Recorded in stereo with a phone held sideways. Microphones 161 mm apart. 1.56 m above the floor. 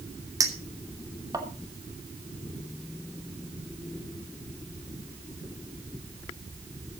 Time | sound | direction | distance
0.4 | a clink | 20° right (ahead or behind) | 2.5 m